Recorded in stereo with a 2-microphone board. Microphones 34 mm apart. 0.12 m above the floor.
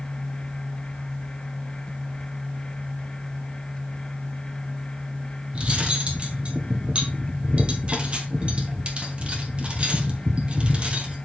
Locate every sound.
5.5 s cutlery clinking: 35° right (ahead or behind), 1.8 m